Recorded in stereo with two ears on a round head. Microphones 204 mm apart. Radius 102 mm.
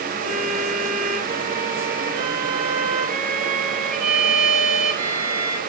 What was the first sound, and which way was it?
A violin, 80° right.